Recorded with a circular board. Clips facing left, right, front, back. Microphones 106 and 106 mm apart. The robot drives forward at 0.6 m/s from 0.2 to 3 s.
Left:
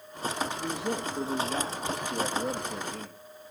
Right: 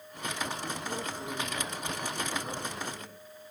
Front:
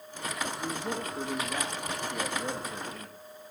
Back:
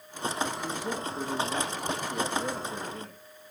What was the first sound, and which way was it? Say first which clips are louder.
A man speaking: left 5 dB, back 1 dB; 95° left.